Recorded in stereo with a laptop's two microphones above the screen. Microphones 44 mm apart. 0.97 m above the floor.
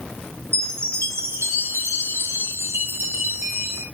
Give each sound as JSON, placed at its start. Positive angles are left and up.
{"t": 0.5, "sound": "a chime", "side_deg": -75, "distance_m": 3.5}